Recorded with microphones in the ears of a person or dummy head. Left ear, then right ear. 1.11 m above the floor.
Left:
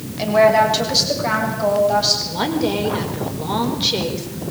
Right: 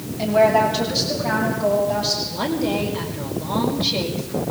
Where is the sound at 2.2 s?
35° left (ahead or behind), 5 m.